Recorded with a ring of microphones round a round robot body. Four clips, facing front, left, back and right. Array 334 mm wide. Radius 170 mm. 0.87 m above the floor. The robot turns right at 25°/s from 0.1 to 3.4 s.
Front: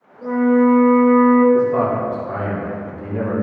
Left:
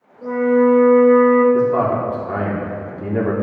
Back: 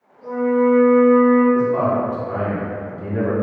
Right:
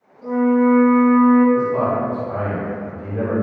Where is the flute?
35° left, 1.7 m; by 1.4 s 65° left, 1.7 m.